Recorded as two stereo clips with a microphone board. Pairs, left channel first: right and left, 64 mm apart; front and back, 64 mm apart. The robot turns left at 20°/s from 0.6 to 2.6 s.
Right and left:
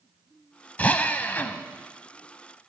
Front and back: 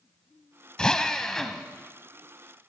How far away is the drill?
About 0.7 m.